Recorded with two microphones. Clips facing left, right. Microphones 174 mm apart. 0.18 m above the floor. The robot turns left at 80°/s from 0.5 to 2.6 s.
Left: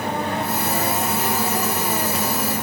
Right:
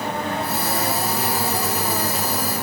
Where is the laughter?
I don't hear laughter.